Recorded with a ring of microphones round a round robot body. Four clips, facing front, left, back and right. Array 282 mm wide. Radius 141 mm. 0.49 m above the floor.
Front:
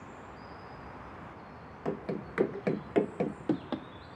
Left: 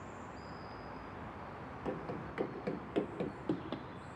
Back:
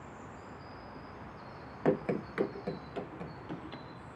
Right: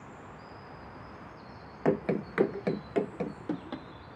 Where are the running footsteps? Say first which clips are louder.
Right 13 dB, back 5 dB; 125° right, 0.7 m; by 3.9 s straight ahead, 1.4 m.